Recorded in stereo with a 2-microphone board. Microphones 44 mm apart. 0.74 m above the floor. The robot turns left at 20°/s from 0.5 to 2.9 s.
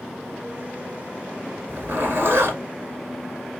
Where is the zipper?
50° right (ahead or behind), 1.4 m; by 3.6 s 65° right (ahead or behind), 1.4 m.